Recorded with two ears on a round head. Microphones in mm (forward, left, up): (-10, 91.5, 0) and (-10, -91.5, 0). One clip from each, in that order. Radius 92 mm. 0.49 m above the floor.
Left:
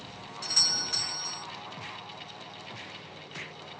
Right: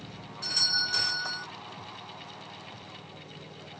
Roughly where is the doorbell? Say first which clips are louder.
Even; left.